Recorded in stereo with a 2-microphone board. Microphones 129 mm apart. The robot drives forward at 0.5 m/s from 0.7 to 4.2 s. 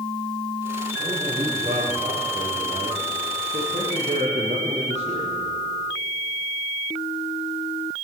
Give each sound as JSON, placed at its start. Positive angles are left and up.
{"t": 1.0, "sound": "a man speaking", "side_deg": -55, "distance_m": 6.0}